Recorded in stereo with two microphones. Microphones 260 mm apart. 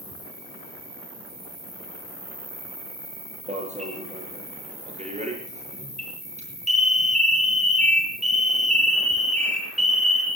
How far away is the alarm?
About 6.5 m.